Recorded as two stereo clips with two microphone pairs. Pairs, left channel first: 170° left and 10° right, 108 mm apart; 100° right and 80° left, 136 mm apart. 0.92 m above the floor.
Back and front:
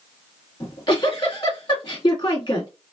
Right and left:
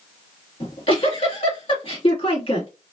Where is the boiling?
No boiling in this recording.